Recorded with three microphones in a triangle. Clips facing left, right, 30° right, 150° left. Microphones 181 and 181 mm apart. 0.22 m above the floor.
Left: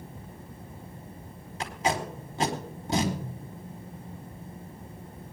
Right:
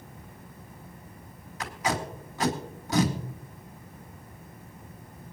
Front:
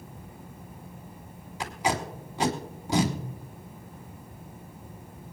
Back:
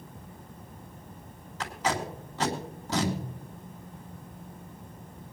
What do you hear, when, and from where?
1.6 s tape being pulled: 40° left, 2 m